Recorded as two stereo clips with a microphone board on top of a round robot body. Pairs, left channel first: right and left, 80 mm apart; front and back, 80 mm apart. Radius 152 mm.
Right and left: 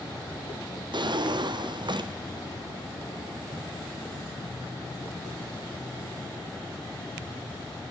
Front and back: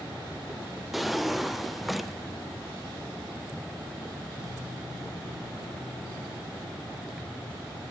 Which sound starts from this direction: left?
A drawer, at 0.9 s.